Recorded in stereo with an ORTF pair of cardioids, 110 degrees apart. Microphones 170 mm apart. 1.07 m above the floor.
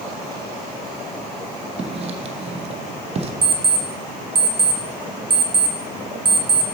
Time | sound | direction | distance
1.8 | writing | 40° right | 0.9 m
3.4 | an alarm clock | 30° right | 1.1 m